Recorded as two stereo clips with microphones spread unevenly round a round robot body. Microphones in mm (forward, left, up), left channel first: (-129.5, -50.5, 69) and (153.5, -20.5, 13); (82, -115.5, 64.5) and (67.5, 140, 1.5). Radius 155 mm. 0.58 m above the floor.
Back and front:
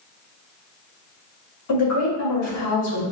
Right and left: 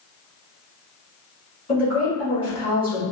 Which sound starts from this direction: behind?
A woman speaking, at 1.7 s.